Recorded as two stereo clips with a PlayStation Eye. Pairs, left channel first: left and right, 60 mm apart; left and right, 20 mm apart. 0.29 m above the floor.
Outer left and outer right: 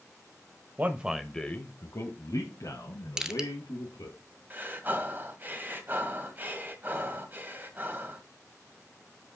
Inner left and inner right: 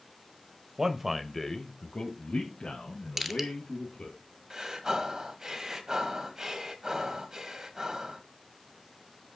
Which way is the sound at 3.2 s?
10° right (ahead or behind).